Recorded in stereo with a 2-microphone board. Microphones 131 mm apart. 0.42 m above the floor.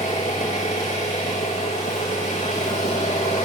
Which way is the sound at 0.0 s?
80° left.